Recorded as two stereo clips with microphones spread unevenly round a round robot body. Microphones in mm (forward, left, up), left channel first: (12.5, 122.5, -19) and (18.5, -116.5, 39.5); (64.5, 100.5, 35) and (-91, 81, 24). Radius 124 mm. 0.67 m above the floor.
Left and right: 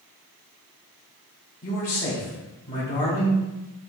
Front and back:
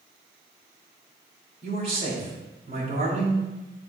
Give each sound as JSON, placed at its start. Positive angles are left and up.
{"t": 1.6, "sound": "a man speaking", "azimuth_deg": 145, "distance_m": 2.5}